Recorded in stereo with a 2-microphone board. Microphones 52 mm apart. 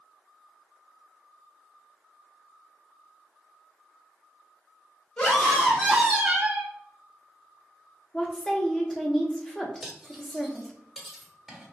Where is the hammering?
I don't hear hammering.